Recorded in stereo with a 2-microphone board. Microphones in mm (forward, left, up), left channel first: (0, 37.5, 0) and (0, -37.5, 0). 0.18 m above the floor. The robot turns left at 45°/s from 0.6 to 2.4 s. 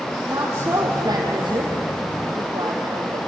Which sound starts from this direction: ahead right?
A woman speaking, at 0.2 s.